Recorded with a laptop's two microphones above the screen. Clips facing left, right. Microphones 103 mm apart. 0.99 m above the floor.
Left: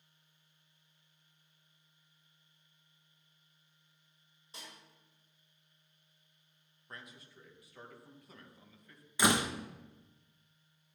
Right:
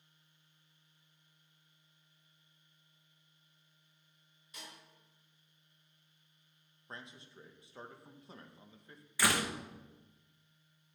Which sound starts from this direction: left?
A snare drum, at 4.5 s.